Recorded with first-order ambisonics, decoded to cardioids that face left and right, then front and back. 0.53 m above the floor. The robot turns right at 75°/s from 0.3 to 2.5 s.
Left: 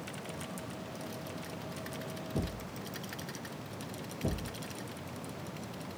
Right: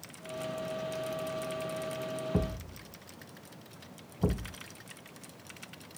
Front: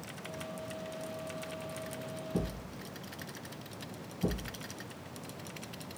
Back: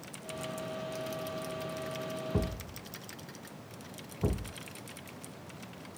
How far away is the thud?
About 1.0 m.